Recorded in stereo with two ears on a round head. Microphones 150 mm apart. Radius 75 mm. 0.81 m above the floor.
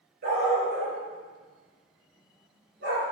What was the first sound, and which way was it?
A dog barking, 60° right (ahead or behind).